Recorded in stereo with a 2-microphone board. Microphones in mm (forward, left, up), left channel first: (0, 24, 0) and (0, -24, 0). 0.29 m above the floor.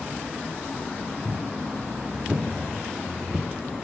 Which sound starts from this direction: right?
Footsteps, at 1.2 s.